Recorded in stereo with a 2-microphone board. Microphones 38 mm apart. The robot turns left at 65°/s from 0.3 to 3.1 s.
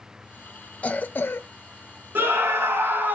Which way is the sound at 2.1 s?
60° right.